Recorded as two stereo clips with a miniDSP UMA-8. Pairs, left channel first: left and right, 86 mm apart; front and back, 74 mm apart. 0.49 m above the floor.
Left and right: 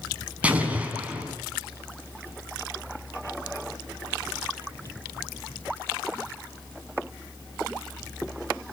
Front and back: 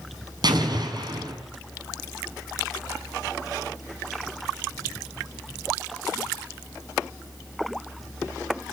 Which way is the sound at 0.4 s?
165° right.